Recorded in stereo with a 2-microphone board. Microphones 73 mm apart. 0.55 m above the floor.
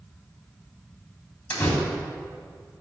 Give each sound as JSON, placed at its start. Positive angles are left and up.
{"t": 1.5, "sound": "a door slam", "side_deg": 20, "distance_m": 2.5}